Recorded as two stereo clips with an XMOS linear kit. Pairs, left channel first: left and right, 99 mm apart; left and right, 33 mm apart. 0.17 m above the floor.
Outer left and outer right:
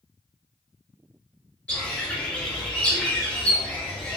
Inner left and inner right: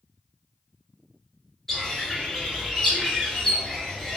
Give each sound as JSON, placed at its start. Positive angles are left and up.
{"t": 1.7, "sound": "a bird", "side_deg": 15, "distance_m": 2.0}